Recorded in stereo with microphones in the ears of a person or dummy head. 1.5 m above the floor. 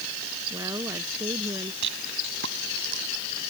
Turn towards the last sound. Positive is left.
turn(degrees=-70)  # may be behind; listen again after turning